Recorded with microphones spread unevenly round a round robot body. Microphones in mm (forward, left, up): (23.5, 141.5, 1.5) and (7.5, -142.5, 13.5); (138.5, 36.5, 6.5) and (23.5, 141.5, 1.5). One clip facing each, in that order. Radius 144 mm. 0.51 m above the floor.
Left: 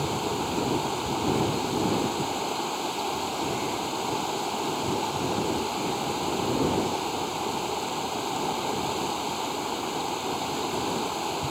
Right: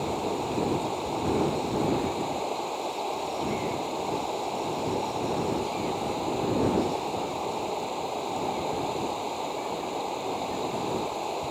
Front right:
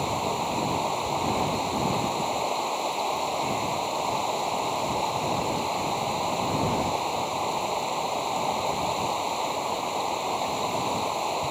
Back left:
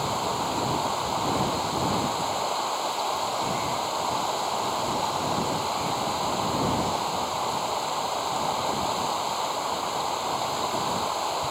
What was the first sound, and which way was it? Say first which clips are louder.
Running water: even, even; 30° left.